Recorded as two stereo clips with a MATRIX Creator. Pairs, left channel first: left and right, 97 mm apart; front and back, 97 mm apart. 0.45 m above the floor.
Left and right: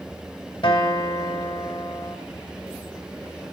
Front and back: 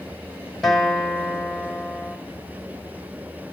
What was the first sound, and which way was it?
A guitar, 85° left.